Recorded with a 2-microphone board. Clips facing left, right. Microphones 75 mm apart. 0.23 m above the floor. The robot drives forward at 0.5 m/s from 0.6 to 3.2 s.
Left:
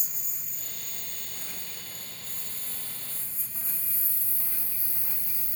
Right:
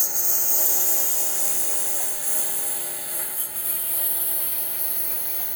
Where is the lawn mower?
75° right (ahead or behind); by 5.6 s 65° right (ahead or behind).